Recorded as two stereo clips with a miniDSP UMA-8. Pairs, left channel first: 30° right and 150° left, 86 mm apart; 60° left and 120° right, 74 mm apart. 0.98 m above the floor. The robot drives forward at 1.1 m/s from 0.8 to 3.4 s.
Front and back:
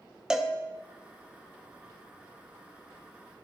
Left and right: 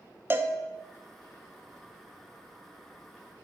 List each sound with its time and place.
0.3 s a cowbell: 135° right, 0.5 m